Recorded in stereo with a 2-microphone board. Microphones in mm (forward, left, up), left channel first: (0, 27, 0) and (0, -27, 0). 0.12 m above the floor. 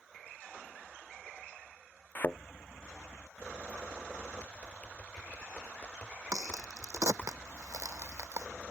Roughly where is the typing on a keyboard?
Left.